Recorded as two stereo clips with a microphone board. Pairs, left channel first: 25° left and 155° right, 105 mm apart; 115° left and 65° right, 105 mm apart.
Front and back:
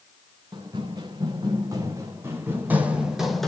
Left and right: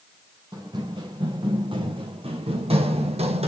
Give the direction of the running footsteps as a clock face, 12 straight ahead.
4 o'clock.